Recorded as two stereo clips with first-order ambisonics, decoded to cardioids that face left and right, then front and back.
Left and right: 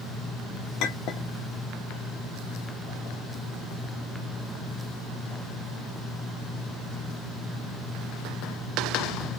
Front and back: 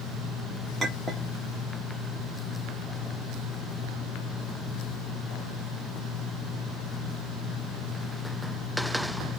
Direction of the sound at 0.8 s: 100° left.